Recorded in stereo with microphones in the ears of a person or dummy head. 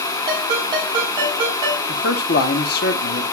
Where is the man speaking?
60° left (ahead or behind), 0.9 m.